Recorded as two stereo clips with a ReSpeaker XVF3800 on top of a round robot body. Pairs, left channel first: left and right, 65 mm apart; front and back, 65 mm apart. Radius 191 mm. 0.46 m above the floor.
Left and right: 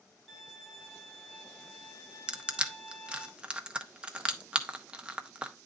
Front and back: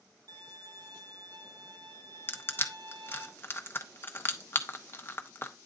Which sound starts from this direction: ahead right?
Crushing, at 2.3 s.